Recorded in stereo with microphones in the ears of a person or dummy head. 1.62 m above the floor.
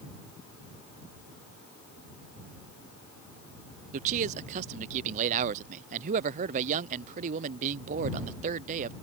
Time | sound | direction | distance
3.9 | a man speaking | 35° right (ahead or behind) | ?